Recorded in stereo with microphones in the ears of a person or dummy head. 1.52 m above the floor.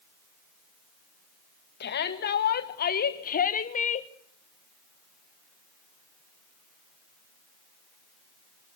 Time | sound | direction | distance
1.8 | a shout | 60° left (ahead or behind) | 2.5 m